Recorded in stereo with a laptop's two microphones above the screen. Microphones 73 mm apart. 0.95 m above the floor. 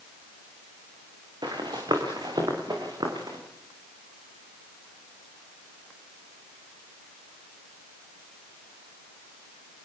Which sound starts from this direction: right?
Running footsteps, at 1.4 s.